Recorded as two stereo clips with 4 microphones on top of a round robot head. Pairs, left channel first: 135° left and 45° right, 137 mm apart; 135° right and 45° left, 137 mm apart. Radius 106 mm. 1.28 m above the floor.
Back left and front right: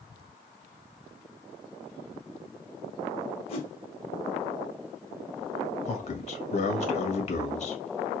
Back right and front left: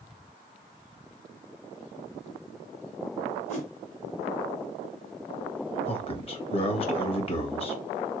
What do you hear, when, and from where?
3.5 s a whoosh: straight behind, 1.8 m
5.8 s a man speaking: 175° left, 1.5 m